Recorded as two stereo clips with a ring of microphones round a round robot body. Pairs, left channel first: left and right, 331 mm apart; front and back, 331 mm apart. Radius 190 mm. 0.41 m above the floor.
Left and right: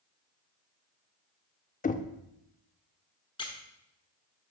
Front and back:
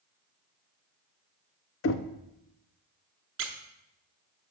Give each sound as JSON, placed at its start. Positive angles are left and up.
{"t": 1.8, "sound": "knocking", "azimuth_deg": 30, "distance_m": 0.6}
{"t": 3.4, "sound": "a squeak", "azimuth_deg": 160, "distance_m": 1.0}